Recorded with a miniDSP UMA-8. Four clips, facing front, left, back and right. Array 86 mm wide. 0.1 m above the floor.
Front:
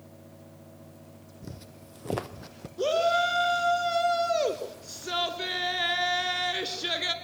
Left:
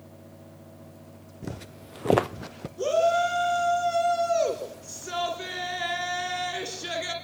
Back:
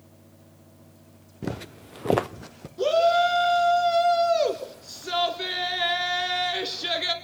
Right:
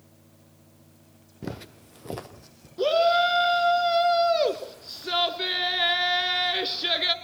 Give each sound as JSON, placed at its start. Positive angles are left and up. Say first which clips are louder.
{"t": 1.4, "sound": "footsteps", "louder": "right 2 dB, back 13 dB", "azimuth_deg": -160, "distance_m": 0.9}
{"t": 2.8, "sound": "a shout", "louder": "right 2 dB, back 5 dB", "azimuth_deg": -100, "distance_m": 1.7}